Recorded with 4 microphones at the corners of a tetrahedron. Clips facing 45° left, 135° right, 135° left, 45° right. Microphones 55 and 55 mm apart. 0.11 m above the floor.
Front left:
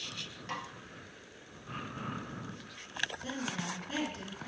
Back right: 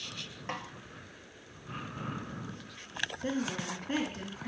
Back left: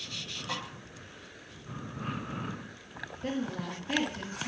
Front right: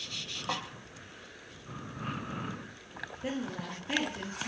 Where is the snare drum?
80° right, 1.2 m.